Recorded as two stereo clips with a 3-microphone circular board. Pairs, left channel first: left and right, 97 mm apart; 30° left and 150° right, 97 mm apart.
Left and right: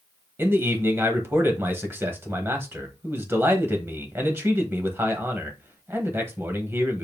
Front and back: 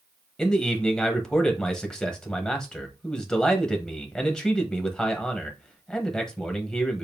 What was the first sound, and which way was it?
A man speaking, 45° right.